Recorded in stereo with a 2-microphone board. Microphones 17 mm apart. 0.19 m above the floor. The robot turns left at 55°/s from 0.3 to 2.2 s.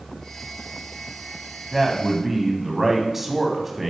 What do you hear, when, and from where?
1.7 s a man speaking: 15° right (ahead or behind), 1.0 m; by 3.9 s 20° right (ahead or behind), 1.0 m